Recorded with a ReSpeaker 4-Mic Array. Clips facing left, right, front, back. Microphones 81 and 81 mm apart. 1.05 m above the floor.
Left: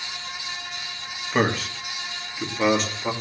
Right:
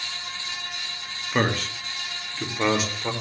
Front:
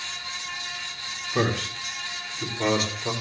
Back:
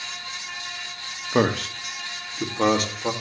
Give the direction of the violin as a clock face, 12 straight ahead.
I don't hear a violin.